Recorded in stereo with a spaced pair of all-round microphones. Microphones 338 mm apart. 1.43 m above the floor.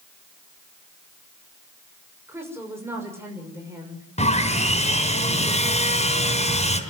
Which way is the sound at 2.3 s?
5° right (ahead or behind).